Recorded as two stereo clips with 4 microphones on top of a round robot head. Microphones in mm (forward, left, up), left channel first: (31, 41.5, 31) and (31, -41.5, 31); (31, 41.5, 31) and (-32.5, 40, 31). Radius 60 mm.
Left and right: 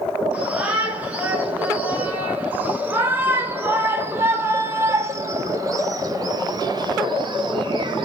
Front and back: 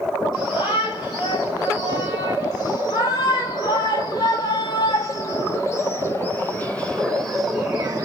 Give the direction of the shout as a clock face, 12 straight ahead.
1 o'clock.